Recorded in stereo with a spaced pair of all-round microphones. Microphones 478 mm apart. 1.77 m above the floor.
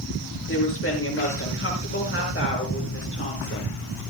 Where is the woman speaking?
25° left (ahead or behind), 6.5 m.